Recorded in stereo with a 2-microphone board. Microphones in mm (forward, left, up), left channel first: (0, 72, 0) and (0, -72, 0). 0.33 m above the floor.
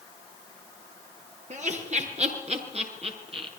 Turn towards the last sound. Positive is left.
turn(degrees=-40)  # may be behind; listen again after turning